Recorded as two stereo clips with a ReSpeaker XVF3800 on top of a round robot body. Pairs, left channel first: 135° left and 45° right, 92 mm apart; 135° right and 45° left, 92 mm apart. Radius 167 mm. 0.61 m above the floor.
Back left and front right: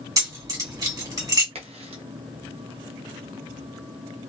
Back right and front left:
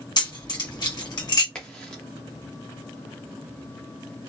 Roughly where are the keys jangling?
Right.